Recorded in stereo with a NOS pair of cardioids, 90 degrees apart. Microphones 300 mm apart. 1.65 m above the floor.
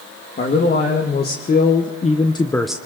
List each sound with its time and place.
0.4 s a man speaking: 35° left, 2 m; by 2.8 s 25° right, 0.5 m